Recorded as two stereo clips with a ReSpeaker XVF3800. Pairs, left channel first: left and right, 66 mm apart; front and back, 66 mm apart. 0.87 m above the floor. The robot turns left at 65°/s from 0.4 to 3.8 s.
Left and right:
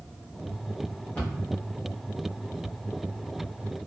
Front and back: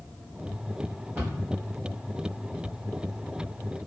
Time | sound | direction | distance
1.1 | a cupboard door | 135° left | 1.1 m